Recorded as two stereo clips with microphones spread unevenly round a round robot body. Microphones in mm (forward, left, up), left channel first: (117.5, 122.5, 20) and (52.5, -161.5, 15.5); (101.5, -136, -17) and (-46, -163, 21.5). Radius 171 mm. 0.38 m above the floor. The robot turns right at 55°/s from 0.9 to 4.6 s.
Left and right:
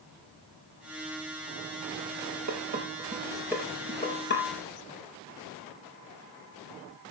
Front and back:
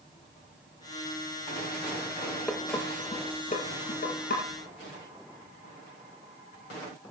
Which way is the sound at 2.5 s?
75° right.